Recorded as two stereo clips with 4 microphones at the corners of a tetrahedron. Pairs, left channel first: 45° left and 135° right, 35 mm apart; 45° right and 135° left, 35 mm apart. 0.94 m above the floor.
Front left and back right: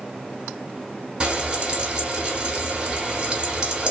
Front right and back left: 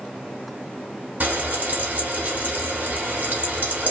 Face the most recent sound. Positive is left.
turn(degrees=170)